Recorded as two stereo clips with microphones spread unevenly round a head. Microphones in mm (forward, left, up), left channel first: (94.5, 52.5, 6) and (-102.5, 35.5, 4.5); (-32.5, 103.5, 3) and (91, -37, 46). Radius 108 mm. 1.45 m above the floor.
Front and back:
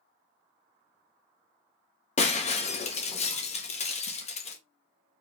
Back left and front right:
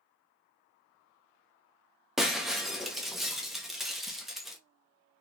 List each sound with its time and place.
2.2 s breaking glass: 15° left, 0.8 m